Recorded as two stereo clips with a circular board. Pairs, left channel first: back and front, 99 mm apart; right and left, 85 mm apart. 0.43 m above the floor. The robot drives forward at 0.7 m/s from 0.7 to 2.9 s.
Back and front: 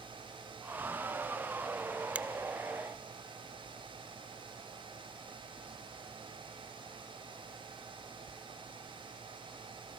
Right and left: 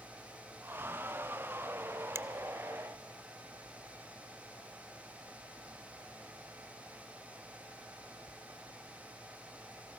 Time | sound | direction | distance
2.1 | a finger snap | 60° left | 0.7 m